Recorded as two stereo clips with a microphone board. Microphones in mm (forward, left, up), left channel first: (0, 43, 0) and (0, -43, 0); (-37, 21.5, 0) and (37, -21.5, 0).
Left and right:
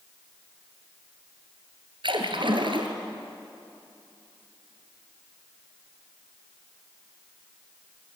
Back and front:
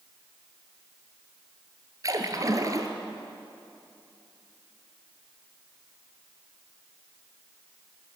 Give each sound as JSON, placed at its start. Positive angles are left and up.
{"t": 2.0, "sound": "a splash", "azimuth_deg": -75, "distance_m": 1.8}